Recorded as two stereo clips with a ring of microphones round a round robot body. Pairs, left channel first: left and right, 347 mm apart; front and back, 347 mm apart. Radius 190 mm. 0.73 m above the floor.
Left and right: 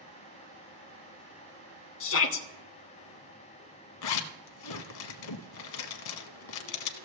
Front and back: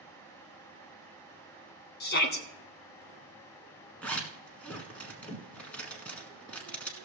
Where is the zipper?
85° left, 1.0 m.